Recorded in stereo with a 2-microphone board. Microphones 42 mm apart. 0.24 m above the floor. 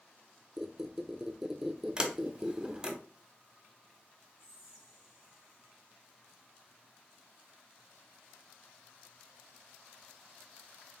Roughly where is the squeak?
Centre.